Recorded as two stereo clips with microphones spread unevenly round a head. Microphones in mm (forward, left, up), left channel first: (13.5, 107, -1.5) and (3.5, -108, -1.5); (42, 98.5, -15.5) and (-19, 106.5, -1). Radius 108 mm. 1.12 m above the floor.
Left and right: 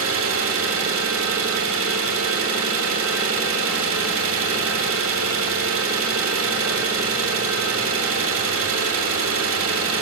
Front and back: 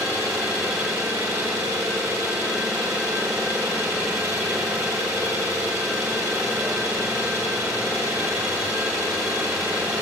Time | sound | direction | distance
0.0 | an engine running | 120° right | 2.5 m